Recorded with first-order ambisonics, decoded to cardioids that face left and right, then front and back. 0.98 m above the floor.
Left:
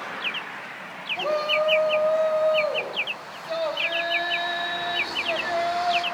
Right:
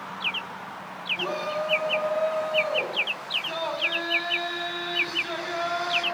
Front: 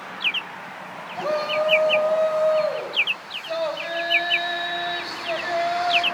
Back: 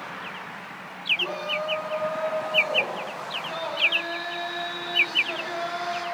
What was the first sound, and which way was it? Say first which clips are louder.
A shout: left 8 dB, front 4 dB; 50° left.